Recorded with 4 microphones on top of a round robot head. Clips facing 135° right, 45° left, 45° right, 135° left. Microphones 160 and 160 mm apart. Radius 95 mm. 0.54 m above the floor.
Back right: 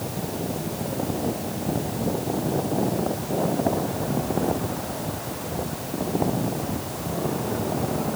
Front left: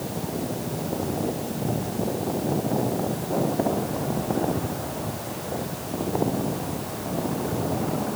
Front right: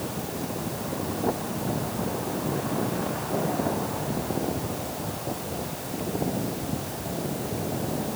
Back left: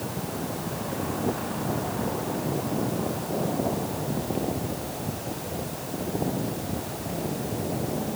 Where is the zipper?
I don't hear a zipper.